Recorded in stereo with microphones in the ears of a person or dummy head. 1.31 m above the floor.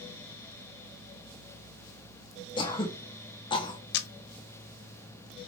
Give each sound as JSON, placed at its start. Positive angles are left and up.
{"t": 2.6, "sound": "throat clearing", "side_deg": 20, "distance_m": 0.7}
{"t": 3.9, "sound": "a camera shutter", "side_deg": 60, "distance_m": 0.5}